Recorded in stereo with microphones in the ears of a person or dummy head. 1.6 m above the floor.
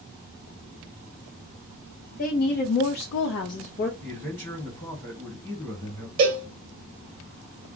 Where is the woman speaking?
50° left (ahead or behind), 0.9 m; by 3.9 s 35° left (ahead or behind), 0.8 m.